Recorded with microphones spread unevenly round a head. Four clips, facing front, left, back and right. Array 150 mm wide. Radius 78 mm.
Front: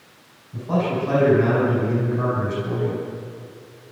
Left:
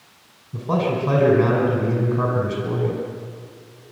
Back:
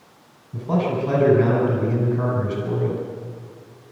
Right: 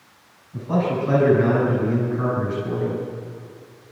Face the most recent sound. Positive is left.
turn(degrees=115)